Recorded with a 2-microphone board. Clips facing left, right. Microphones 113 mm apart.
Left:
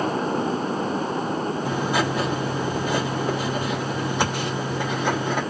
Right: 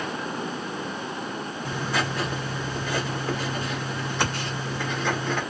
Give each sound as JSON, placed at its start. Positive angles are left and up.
{"t": 1.6, "sound": "writing", "side_deg": 15, "distance_m": 2.0}